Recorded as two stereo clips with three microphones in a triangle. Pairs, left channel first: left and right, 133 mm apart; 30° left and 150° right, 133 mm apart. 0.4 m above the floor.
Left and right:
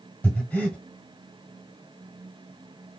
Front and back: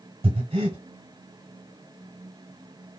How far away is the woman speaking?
No woman speaking in this recording.